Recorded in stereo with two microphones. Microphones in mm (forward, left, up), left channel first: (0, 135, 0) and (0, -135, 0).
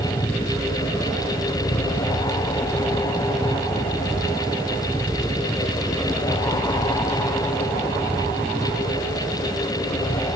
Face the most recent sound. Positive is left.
turn(degrees=0)  # may be behind; listen again after turning